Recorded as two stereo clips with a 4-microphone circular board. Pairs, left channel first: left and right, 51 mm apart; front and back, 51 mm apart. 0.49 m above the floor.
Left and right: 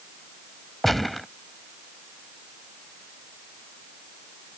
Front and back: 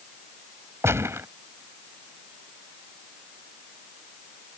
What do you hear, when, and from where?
0.8 s a gunshot: straight behind